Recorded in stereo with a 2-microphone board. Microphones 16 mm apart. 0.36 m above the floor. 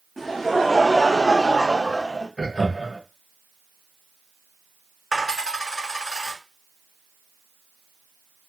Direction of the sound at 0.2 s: 5° left (ahead or behind).